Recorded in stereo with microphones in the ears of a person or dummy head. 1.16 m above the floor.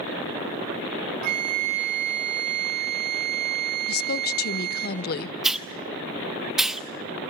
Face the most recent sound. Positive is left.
turn(degrees=0)  # may be behind; listen again after turning